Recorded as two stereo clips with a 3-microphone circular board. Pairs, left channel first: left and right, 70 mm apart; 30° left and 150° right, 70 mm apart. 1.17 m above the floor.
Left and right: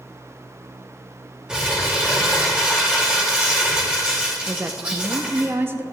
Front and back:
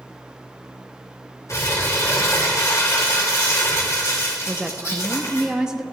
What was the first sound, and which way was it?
Crumpling, 10° right.